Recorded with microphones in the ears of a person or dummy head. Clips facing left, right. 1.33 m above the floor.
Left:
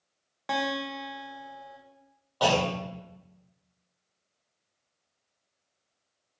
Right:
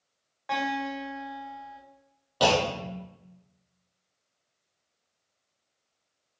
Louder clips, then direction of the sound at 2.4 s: Right 1 dB; 40° right (ahead or behind).